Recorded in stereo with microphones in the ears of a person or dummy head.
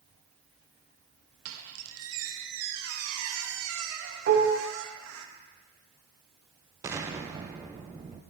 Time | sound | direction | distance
1.4 | a squeak | 80° right | 1.0 m
4.3 | dishes clattering | 50° right (ahead or behind) | 1.7 m
6.8 | an explosion | 15° right (ahead or behind) | 0.7 m